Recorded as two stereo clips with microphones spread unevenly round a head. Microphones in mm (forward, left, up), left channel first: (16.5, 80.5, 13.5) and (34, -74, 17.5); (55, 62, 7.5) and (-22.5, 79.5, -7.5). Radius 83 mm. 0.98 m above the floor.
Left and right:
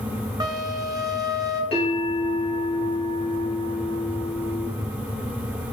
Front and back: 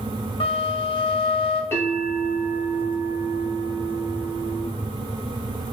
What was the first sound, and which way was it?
A flute, 15° right.